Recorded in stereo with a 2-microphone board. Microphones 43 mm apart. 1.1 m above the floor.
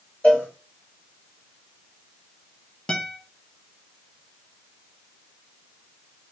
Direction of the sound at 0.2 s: 30° left (ahead or behind).